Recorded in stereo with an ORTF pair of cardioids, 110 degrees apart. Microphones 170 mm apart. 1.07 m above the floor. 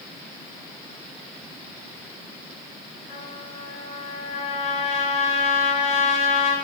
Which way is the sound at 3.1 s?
45° left.